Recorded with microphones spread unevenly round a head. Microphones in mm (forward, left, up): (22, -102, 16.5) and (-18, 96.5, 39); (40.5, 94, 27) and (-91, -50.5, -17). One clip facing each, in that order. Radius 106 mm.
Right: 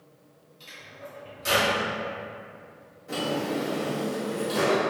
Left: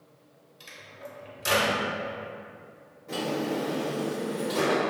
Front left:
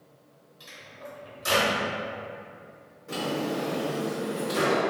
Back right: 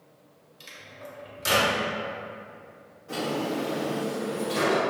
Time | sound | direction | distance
0.6 | a microwave | 170° left | 0.7 m
3.1 | a drawer | 5° left | 0.8 m